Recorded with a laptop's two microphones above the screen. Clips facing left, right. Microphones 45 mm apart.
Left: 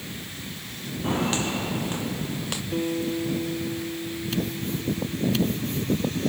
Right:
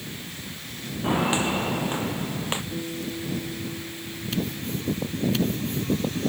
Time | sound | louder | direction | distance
1.0 | footsteps | right 2 dB | 15° right (ahead or behind) | ?
2.7 | a guitar | left 5 dB | 50° left (ahead or behind) | ?